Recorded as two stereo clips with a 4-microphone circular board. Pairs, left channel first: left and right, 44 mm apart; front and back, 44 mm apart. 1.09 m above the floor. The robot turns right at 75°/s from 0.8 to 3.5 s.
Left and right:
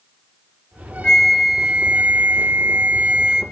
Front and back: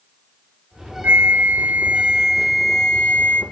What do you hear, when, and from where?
1.0 s a flute: 160° left, 1.2 m; by 3.4 s 20° right, 1.2 m